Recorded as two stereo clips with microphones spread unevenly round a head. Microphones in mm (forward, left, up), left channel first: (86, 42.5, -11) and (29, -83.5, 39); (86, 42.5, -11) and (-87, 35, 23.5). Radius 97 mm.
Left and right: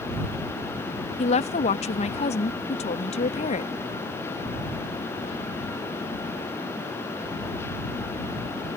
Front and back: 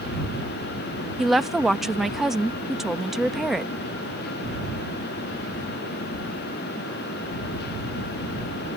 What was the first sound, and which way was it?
A woman speaking, 90° left.